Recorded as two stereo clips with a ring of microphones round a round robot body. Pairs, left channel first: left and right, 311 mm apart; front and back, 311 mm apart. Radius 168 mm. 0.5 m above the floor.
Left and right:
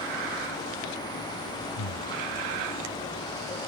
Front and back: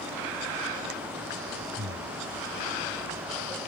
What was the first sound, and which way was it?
Breathing, 115° left.